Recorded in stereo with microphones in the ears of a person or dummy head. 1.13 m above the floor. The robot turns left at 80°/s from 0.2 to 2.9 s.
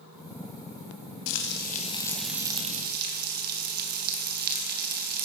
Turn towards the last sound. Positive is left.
turn(degrees=-55)